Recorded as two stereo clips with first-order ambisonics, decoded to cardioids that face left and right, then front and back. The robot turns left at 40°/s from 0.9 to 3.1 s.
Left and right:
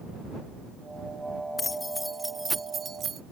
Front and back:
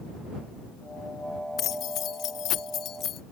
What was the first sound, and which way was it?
Keys jangling, 25° left.